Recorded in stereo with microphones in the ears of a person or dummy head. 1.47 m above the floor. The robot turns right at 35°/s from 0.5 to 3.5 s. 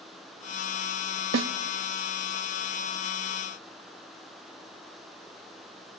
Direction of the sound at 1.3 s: 65° right (ahead or behind).